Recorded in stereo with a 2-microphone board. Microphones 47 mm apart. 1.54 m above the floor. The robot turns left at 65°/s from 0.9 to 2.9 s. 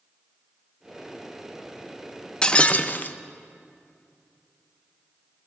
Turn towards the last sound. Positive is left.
turn(degrees=125)